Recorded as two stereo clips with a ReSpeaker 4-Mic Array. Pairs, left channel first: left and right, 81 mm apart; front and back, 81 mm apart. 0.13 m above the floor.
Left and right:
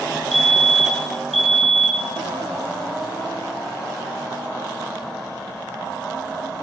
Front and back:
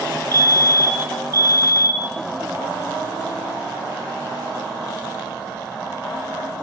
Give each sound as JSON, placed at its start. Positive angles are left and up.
{"t": 0.3, "sound": "a fire alarm", "azimuth_deg": 180, "distance_m": 2.5}